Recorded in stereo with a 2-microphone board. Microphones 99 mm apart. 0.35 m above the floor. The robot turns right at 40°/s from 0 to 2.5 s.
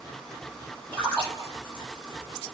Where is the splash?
15° left (ahead or behind), 6 m; by 1.9 s 50° left (ahead or behind), 6 m.